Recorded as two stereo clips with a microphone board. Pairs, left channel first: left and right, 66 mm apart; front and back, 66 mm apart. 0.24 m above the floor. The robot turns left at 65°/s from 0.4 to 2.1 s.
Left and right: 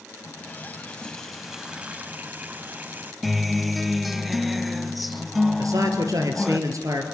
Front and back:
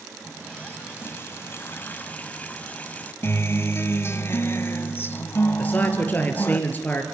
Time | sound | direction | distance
0.2 | a running tap | 65° left | 1.1 m
3.2 | a guitar | straight ahead | 0.7 m
5.6 | a man speaking | 60° right | 4 m